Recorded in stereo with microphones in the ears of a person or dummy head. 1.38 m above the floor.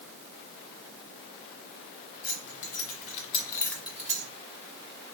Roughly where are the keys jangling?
Left.